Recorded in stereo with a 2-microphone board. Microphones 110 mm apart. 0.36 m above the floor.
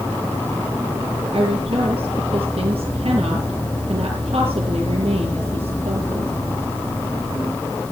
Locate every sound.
1.3 s a woman speaking: 55° right (ahead or behind), 5.5 m